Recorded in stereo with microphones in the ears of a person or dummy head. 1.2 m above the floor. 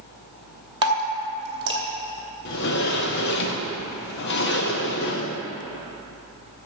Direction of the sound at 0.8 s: 25° right (ahead or behind).